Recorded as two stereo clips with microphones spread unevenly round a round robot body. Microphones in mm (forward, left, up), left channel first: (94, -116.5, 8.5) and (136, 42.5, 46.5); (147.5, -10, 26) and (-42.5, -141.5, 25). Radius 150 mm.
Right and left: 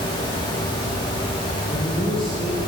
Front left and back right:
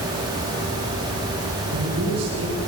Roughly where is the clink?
No clink in this recording.